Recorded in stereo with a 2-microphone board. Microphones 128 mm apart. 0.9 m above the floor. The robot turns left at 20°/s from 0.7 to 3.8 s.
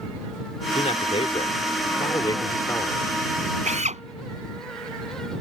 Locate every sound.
0.8 s a man speaking: 65° left; by 3.1 s 20° left
3.6 s a drill: 70° right (ahead or behind); by 4.0 s 65° right (ahead or behind)